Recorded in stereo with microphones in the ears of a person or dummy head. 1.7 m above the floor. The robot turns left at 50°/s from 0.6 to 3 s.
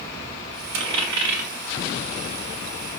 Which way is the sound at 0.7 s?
20° right (ahead or behind).